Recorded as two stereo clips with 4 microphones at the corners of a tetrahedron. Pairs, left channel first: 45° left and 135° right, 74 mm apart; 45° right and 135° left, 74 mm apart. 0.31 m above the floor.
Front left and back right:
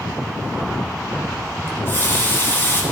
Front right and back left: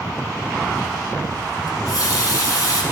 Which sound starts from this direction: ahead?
A running tap, at 1.7 s.